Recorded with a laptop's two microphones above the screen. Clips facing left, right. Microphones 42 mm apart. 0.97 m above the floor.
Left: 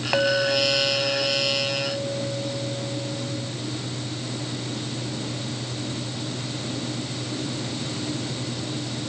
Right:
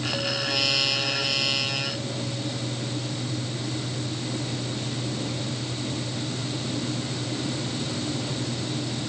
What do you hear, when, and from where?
0.1 s a clink: 80° left